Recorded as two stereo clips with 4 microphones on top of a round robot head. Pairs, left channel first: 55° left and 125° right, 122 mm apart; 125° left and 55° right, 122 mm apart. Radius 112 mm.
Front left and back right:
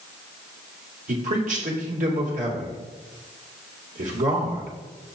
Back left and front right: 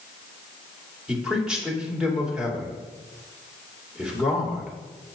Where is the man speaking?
135° right, 2.5 m.